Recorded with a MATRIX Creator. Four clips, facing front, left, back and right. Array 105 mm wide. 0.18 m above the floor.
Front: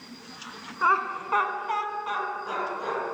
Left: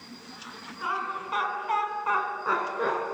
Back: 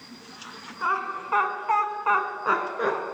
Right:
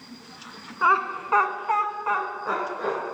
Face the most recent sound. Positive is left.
turn(degrees=160)